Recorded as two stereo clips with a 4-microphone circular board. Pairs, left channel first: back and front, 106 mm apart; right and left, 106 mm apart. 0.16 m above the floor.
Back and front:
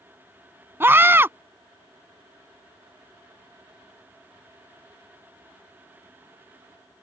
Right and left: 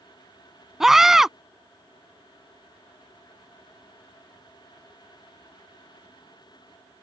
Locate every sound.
0.8 s a scream: 10° left